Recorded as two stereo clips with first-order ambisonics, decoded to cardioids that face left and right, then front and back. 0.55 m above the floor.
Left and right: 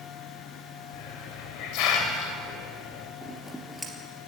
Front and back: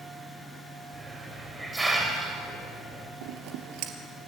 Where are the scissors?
175° left, 3 m.